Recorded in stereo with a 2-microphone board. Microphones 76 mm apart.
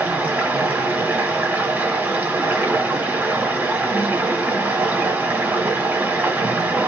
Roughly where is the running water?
Right.